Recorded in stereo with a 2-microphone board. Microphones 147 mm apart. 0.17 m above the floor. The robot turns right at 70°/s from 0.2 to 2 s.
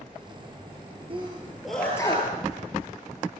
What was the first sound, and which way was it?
A sneeze, 40° right (ahead or behind).